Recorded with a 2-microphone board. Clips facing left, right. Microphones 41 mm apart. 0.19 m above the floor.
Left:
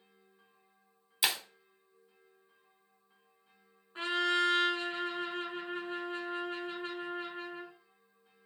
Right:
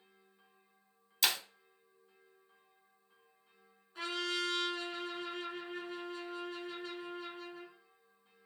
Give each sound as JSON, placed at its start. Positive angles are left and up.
{"t": 1.2, "sound": "breaking glass", "side_deg": 15, "distance_m": 0.9}
{"t": 4.0, "sound": "a trumpet", "side_deg": 35, "distance_m": 0.7}